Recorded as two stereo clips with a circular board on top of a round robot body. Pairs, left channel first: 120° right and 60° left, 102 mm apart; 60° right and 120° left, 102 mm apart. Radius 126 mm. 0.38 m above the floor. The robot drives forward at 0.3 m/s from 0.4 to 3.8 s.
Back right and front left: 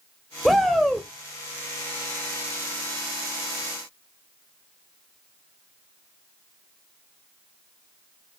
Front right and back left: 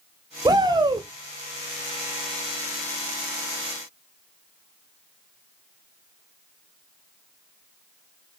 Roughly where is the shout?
Behind left.